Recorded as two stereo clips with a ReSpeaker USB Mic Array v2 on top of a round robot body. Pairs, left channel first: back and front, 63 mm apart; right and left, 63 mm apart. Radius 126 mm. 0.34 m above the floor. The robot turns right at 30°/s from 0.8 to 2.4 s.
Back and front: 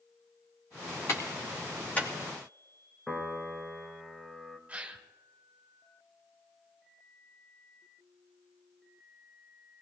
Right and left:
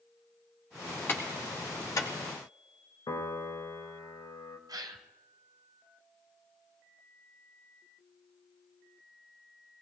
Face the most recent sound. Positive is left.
turn(degrees=70)